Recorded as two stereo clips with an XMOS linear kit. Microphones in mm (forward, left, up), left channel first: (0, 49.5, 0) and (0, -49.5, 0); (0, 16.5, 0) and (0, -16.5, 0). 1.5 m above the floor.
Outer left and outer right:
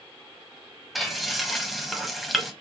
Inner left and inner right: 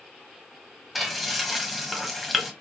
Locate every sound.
0.9 s frying: centre (ahead or behind), 0.9 m